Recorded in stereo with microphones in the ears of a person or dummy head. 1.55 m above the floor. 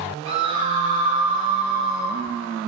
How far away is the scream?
About 5 m.